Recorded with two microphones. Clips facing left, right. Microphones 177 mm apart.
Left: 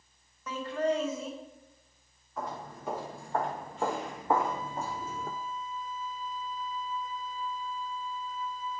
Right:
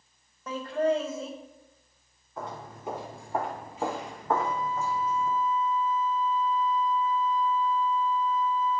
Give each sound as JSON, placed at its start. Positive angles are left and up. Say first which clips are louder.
{"t": 0.5, "sound": "laughter", "louder": "right 3 dB", "side_deg": -30, "distance_m": 1.7}
{"t": 2.4, "sound": "footsteps", "louder": "even", "side_deg": -25, "distance_m": 3.0}
{"t": 4.3, "sound": "a flute", "louder": "right 1 dB", "side_deg": 10, "distance_m": 0.7}